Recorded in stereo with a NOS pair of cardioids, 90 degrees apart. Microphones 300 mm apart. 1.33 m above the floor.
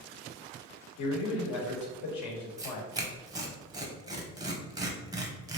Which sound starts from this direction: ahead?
Tearing paper, at 2.6 s.